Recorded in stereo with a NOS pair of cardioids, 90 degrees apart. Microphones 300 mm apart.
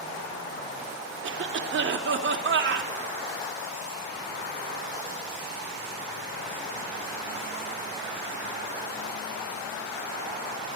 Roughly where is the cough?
Ahead right.